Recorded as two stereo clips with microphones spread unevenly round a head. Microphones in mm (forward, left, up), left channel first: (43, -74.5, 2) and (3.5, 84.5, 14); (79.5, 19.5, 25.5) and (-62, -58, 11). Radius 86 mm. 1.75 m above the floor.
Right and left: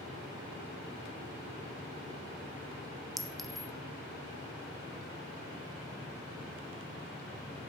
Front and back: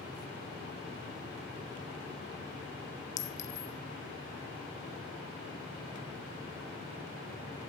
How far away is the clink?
About 0.8 m.